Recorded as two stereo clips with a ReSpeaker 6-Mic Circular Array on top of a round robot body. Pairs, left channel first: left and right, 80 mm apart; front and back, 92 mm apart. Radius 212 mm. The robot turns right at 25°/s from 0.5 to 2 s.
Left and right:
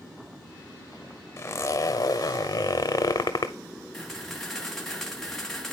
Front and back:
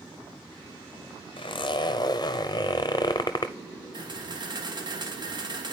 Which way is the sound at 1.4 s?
30° left.